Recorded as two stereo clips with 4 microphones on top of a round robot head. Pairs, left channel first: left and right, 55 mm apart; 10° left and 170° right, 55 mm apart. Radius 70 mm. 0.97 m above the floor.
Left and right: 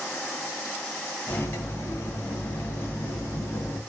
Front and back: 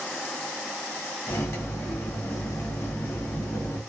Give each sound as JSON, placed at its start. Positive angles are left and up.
{"t": 1.3, "sound": "cutlery clinking", "azimuth_deg": 45, "distance_m": 0.9}